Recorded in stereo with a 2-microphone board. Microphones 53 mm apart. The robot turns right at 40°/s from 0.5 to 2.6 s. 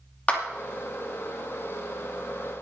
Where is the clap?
30° left (ahead or behind), 2.5 m.